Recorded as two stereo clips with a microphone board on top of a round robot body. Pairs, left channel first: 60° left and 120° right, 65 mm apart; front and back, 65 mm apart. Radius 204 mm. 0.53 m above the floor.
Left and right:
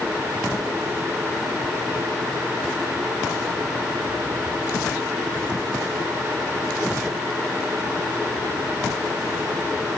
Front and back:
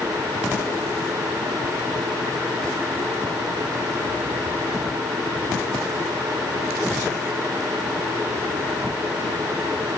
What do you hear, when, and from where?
Only background noise.